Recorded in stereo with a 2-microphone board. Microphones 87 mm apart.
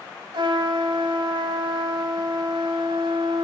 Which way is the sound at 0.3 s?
65° right (ahead or behind).